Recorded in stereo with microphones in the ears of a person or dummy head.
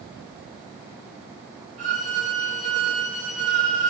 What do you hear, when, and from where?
1.8 s a violin: 45° right (ahead or behind), 3 m